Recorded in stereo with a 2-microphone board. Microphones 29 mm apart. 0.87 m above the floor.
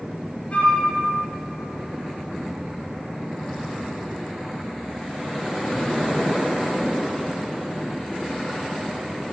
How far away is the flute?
About 3 m.